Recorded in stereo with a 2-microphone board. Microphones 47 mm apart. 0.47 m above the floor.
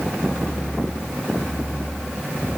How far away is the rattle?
I don't hear a rattle.